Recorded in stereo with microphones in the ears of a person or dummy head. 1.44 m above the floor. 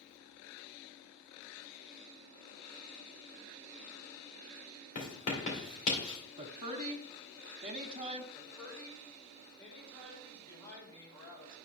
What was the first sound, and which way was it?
Writing, 40° left (ahead or behind).